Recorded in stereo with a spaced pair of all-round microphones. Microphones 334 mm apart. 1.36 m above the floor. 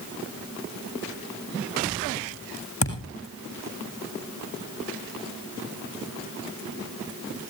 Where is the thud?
40° left (ahead or behind), 7.5 m.